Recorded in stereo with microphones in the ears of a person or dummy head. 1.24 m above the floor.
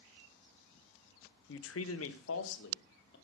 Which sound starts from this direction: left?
A man speaking, at 1.5 s.